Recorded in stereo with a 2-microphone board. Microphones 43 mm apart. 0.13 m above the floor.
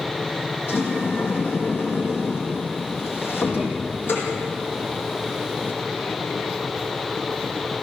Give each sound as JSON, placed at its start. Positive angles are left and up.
{"t": 0.7, "sound": "a sliding door", "side_deg": 55, "distance_m": 5.0}